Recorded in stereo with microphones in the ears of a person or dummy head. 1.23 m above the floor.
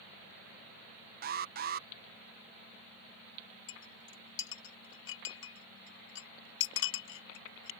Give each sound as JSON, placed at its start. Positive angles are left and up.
{"t": 1.2, "sound": "an alarm", "side_deg": -40}
{"t": 3.7, "sound": "a clink", "side_deg": 75}